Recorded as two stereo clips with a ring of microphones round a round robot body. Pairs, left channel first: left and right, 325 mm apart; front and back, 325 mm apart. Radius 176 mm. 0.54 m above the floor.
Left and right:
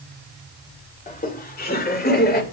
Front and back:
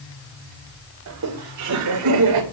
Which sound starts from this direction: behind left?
Laughter, at 1.1 s.